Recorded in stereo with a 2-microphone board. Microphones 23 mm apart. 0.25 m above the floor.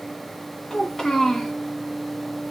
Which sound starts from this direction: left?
A child speaking, at 0.7 s.